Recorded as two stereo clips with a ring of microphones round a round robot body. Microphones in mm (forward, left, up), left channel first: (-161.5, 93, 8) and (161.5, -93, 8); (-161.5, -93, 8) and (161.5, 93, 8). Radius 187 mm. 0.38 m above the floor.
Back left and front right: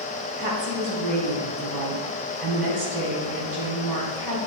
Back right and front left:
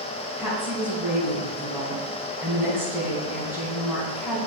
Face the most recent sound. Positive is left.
turn(degrees=-55)